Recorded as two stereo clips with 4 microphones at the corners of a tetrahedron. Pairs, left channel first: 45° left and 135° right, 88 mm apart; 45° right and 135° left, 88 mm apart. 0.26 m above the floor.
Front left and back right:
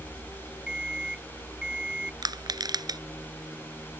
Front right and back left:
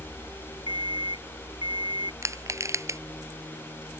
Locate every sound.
0.7 s an alarm clock: 55° right
2.2 s crushing: 170° right